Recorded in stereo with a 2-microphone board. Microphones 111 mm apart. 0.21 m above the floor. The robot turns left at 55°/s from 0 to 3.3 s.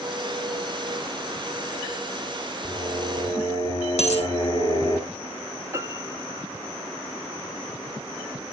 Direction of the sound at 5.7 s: 25° right (ahead or behind).